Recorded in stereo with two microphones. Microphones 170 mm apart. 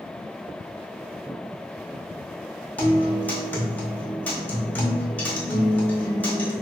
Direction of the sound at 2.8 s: 10° left (ahead or behind).